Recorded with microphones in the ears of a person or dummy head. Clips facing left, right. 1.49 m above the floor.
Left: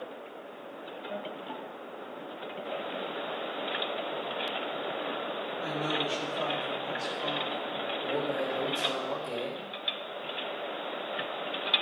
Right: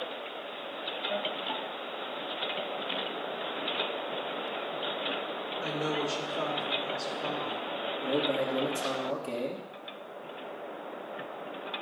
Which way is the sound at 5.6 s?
30° right (ahead or behind).